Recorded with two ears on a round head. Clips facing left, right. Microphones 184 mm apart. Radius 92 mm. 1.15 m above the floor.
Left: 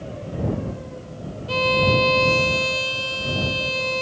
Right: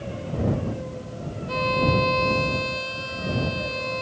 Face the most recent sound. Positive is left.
turn(degrees=45)  # may be behind; listen again after turning